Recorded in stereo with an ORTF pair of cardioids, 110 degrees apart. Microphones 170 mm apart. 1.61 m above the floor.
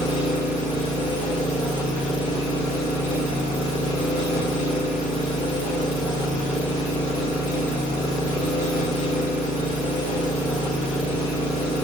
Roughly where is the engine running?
Ahead left.